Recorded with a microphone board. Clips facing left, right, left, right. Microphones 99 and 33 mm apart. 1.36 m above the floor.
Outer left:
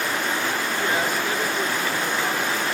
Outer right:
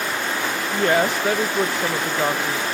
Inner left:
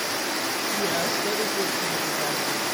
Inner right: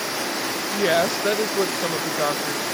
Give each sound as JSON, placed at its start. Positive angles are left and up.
{"t": 0.7, "sound": "a woman speaking", "side_deg": -65, "distance_m": 1.6}